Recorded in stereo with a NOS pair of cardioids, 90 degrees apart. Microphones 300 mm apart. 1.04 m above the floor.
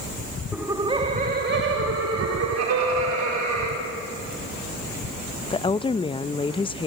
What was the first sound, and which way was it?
Laughter, 5° right.